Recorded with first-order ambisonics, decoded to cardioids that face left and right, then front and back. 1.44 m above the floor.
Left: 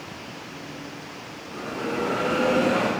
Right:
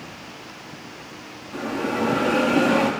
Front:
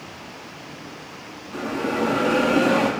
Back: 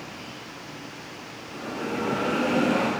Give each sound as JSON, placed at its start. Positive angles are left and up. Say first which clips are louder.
{"t": 1.5, "sound": "a bell", "louder": "right 3 dB, front 6 dB", "azimuth_deg": -40, "distance_m": 1.7}